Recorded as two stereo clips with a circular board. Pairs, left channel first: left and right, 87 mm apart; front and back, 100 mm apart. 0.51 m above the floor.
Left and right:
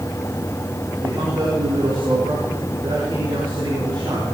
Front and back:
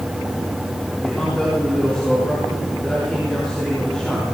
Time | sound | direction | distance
1.0 | a man speaking | 80° right | 5 m